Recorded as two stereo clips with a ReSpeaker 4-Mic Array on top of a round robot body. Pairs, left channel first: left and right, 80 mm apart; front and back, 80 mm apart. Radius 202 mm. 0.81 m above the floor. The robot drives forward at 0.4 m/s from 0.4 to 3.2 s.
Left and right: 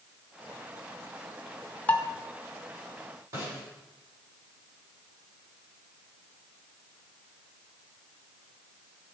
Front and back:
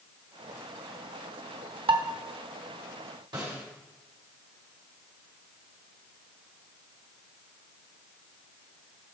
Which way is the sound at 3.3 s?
145° right.